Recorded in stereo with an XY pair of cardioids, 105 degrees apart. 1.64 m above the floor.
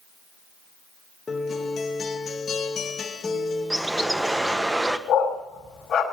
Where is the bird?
15° right, 1.3 m.